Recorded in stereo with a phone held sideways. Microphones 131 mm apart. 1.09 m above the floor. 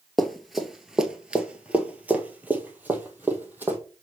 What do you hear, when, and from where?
0.2 s running footsteps: centre (ahead or behind), 1.1 m; by 3.8 s 15° right (ahead or behind), 1.9 m